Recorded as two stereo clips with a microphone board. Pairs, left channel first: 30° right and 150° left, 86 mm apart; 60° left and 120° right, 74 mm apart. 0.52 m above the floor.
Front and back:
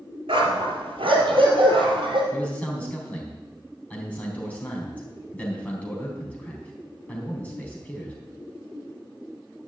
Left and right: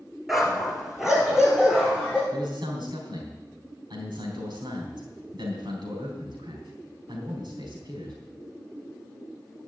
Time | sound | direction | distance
0.3 | a dog barking | 150° left | 2 m
2.3 | a man speaking | 105° right | 4 m